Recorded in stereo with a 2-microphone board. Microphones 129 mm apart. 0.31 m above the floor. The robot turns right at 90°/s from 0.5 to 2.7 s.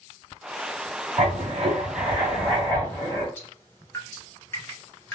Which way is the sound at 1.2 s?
115° right.